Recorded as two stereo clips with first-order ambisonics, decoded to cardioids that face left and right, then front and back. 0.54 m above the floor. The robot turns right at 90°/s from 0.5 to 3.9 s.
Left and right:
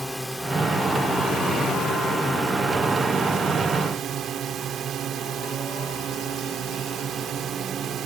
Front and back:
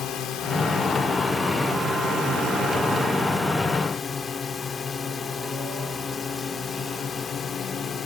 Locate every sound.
0.0 s a drone: straight ahead; by 8.1 s 55° right